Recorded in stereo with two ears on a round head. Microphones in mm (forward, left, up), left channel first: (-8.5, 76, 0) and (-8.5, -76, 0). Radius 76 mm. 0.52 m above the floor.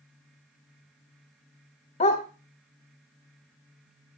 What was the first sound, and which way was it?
A dog barking, 40° left (ahead or behind).